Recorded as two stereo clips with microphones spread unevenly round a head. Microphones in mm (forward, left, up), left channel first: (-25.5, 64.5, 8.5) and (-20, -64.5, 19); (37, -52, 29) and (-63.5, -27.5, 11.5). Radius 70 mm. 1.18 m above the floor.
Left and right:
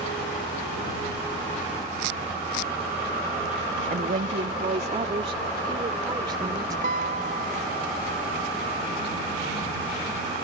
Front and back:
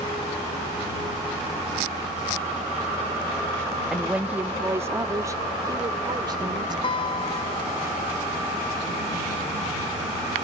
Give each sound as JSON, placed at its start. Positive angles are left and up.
{"t": 3.9, "sound": "a woman speaking", "azimuth_deg": -110}
{"t": 6.8, "sound": "a guitar", "azimuth_deg": -50}